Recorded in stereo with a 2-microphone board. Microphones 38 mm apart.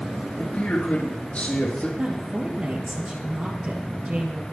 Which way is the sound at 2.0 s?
35° right (ahead or behind).